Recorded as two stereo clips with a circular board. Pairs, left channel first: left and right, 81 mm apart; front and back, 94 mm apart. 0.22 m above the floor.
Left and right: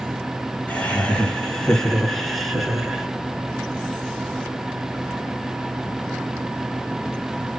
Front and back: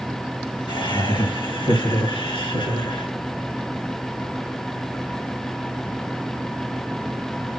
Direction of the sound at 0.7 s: 20° left.